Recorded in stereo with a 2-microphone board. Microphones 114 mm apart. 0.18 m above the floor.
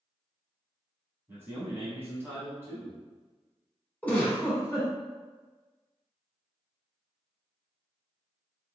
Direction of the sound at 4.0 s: 15° left (ahead or behind).